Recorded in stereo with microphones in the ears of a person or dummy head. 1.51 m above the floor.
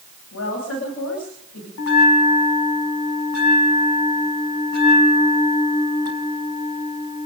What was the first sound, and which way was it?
A woman speaking, 85° left.